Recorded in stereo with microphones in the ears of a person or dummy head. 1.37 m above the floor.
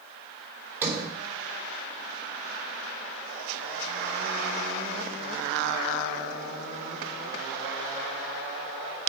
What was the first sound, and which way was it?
A sliding door, 5° right (ahead or behind).